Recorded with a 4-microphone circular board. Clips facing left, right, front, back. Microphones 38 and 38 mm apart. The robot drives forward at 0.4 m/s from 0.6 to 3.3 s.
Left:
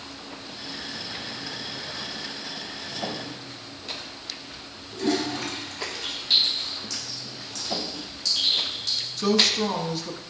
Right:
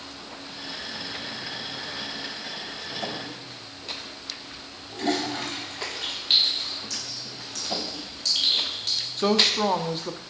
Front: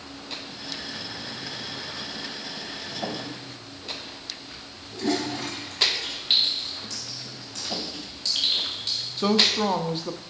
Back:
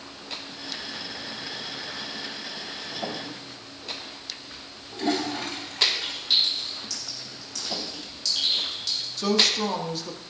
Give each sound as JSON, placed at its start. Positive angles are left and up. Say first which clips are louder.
{"t": 4.9, "sound": "a toilet flushing", "louder": "left 1 dB, even", "azimuth_deg": -130, "distance_m": 3.0}
{"t": 6.3, "sound": "a clink", "louder": "even, front 1 dB", "azimuth_deg": -50, "distance_m": 2.5}
{"t": 9.2, "sound": "a woman speaking", "louder": "even, front 2 dB", "azimuth_deg": -50, "distance_m": 0.7}